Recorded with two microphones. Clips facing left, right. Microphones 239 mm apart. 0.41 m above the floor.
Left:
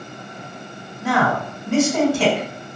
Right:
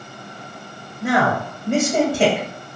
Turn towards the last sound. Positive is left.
turn(degrees=-50)  # may be behind; listen again after turning